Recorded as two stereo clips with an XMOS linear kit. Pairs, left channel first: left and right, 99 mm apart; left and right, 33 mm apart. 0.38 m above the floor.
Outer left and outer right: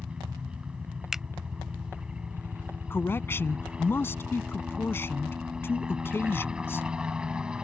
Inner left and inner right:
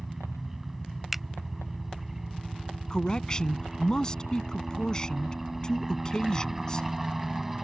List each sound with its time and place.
0.0 s a helicopter: 10° right (ahead or behind)
1.1 s a finger snap: 5° right (ahead or behind)
2.9 s a man speaking: 25° left (ahead or behind)